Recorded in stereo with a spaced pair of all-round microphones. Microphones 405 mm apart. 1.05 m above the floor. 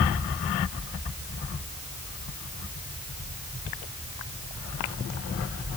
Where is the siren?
No siren in this recording.